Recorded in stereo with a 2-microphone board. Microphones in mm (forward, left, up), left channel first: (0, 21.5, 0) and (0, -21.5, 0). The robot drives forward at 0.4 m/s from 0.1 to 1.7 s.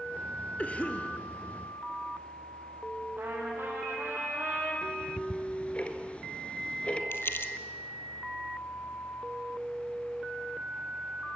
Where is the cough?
30° left (ahead or behind), 1.6 m.